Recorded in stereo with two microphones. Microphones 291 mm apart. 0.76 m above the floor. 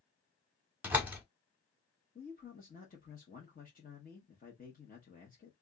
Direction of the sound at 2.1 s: 30° left (ahead or behind).